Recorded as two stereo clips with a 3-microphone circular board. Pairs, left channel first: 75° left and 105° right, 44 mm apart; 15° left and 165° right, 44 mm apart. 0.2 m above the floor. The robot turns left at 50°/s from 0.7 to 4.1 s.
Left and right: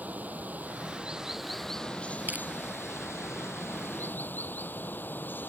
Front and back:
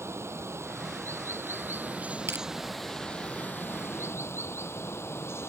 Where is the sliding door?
I don't hear a sliding door.